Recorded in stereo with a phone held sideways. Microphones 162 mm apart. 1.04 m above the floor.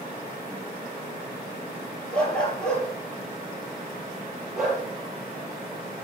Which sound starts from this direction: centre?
A dog barking, at 2.1 s.